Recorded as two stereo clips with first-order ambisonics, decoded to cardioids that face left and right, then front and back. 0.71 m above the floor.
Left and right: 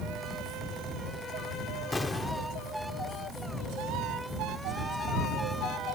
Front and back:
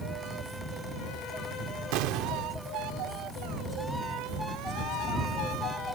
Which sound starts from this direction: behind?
An explosion, at 1.9 s.